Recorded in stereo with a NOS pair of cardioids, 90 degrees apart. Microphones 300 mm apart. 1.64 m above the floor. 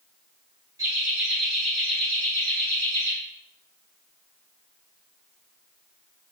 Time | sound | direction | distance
0.8 | laughter | 10° right | 1.0 m